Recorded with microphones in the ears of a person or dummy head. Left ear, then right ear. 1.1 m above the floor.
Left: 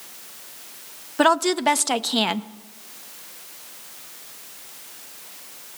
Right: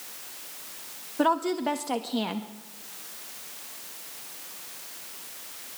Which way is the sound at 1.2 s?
50° left (ahead or behind).